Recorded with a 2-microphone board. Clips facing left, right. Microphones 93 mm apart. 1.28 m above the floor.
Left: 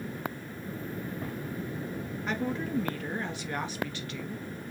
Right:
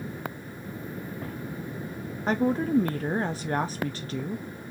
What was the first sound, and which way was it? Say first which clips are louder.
A woman speaking: right 8 dB; 40° right (ahead or behind).